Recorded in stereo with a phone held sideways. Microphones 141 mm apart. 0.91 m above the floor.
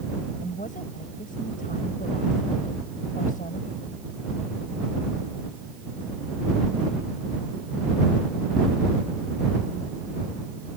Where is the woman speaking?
70° left (ahead or behind).